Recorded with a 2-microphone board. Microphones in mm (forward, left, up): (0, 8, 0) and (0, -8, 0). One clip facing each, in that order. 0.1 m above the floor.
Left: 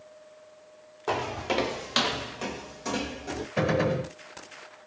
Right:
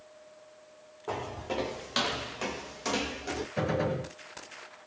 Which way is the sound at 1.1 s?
75° left (ahead or behind).